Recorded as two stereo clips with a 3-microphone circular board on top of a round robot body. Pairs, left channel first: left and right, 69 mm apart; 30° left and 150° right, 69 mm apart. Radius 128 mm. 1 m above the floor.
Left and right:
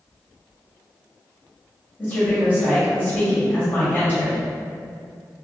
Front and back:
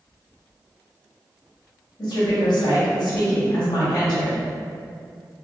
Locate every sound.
2.0 s a woman speaking: 30° left, 1.4 m